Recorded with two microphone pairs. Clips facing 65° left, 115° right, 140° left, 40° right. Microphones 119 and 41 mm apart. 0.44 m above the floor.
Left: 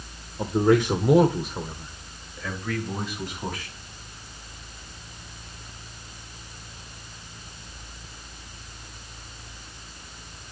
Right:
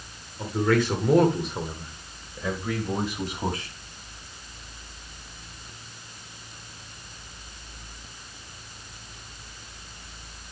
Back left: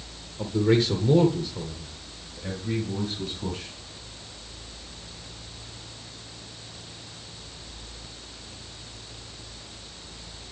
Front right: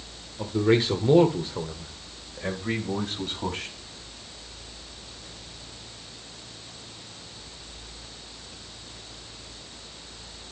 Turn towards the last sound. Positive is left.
turn(degrees=-65)